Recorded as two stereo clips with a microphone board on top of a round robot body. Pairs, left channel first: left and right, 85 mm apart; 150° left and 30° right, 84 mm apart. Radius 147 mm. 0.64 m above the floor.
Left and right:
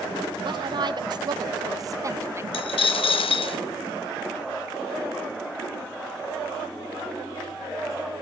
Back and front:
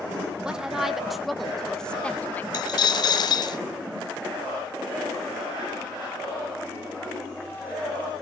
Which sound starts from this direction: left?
A dropped coin, at 2.5 s.